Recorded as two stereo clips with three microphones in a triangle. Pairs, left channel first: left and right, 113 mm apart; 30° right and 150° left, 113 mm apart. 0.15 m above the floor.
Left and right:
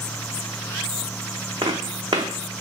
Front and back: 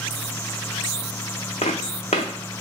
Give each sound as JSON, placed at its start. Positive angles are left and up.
{"t": 1.6, "sound": "footsteps", "azimuth_deg": -40, "distance_m": 0.7}